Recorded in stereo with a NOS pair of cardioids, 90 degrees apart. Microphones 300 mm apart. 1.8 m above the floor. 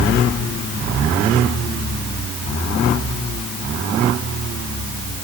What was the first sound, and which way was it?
Only background noise.